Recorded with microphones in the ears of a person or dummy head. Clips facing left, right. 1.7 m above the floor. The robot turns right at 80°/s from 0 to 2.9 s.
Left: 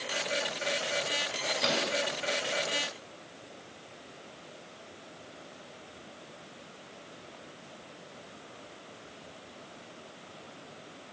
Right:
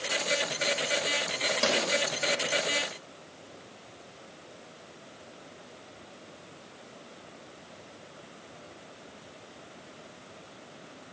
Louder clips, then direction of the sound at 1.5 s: Right 3 dB; 45° right (ahead or behind).